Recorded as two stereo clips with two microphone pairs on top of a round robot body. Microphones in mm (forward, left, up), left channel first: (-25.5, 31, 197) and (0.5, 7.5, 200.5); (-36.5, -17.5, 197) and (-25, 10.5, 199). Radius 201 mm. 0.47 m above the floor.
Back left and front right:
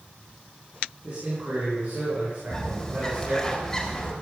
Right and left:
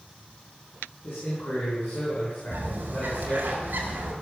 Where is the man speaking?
95° right, 5.5 m.